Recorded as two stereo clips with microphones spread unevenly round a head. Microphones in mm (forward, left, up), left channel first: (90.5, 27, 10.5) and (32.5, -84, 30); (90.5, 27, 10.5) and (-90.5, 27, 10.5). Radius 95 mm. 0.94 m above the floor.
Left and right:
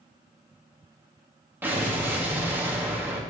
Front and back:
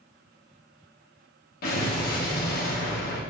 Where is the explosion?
40° right, 1.6 m.